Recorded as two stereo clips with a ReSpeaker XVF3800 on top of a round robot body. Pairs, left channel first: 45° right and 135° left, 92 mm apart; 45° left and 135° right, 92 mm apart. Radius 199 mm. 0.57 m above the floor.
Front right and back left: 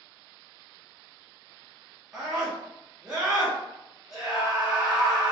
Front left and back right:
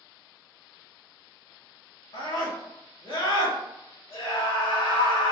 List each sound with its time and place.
2.1 s a scream: 55° left, 2.0 m